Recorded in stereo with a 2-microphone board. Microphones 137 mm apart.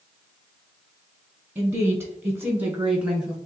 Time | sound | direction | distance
1.6 | a woman speaking | 20° right (ahead or behind) | 1.2 m